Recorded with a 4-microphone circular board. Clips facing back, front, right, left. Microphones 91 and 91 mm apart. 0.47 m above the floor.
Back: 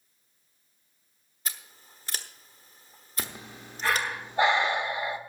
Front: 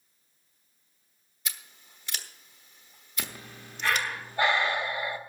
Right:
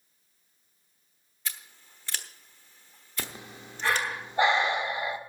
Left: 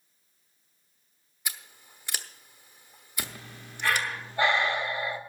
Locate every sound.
1.4 s scissors: 160° left, 1.1 m
3.2 s breathing: 135° right, 1.0 m